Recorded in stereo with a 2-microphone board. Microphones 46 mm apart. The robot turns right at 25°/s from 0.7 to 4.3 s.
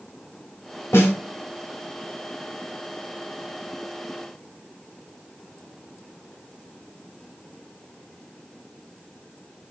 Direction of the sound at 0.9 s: 75° left (ahead or behind).